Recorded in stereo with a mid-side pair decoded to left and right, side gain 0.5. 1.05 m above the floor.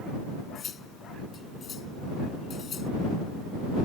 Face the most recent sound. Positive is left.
turn(degrees=45)